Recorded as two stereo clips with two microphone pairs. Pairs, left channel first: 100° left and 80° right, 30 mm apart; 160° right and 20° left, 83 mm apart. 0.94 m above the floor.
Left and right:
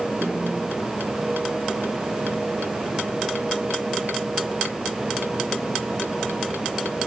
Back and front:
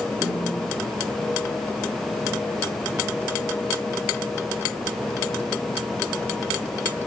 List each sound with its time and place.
0.2 s a snare drum: 30° right, 9 m